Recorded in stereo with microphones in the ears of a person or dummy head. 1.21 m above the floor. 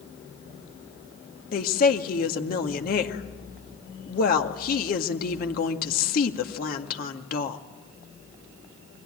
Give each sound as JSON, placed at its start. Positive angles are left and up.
{"t": 1.5, "sound": "a woman speaking", "side_deg": 50, "distance_m": 1.9}